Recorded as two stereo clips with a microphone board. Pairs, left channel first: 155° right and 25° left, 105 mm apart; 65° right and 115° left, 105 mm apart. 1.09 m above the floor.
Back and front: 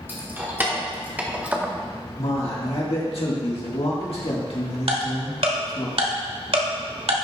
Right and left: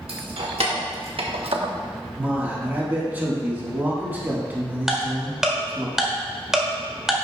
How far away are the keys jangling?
About 1.7 m.